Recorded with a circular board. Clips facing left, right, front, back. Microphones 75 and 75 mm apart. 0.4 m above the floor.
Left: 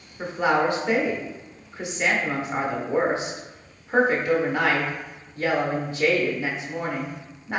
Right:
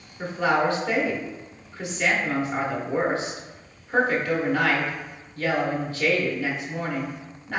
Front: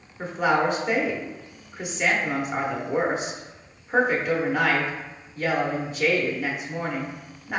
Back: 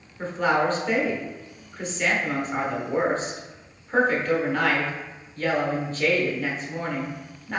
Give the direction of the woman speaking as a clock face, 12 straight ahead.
10 o'clock.